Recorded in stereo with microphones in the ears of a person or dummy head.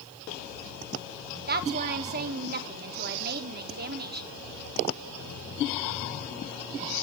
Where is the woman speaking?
45° right (ahead or behind), 1.2 m.